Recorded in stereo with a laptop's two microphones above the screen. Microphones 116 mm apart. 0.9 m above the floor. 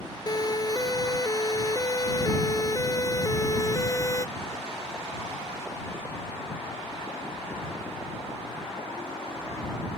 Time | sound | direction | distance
0.3 | a siren | 35° left (ahead or behind) | ?